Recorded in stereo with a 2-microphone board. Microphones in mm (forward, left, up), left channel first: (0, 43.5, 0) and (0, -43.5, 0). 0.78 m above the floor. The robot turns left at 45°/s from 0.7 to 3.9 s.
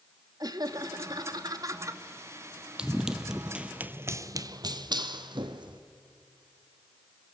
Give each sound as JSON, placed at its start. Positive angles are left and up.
{"t": 0.4, "sound": "laughter", "azimuth_deg": -75, "distance_m": 1.5}
{"t": 2.8, "sound": "running footsteps", "side_deg": -10, "distance_m": 1.2}